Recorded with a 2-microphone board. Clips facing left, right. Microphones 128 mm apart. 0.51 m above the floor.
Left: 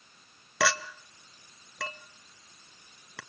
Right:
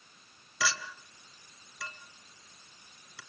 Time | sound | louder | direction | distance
0.6 | a clink | left 6 dB | 65° left (ahead or behind) | 1.2 m